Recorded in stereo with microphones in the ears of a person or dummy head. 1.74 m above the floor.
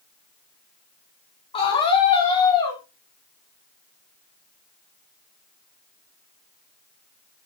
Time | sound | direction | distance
1.5 | a scream | 30° left (ahead or behind) | 5 m